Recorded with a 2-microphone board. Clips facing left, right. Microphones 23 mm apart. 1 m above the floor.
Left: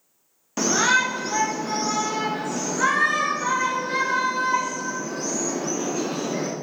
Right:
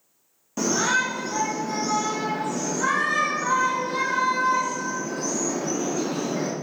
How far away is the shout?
About 1.1 m.